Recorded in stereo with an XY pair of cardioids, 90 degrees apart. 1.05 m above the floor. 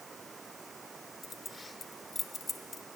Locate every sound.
0.0 s running water: 35° right
1.2 s keys jangling: 30° left